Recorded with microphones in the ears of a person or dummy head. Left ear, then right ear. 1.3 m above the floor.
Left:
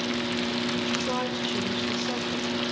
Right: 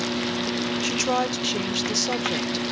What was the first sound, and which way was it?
A woman speaking, 70° right (ahead or behind).